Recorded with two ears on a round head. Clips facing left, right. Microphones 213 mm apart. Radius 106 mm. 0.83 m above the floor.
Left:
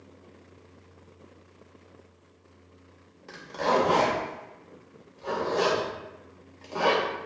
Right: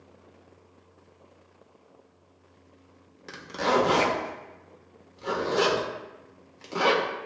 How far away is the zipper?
About 0.7 m.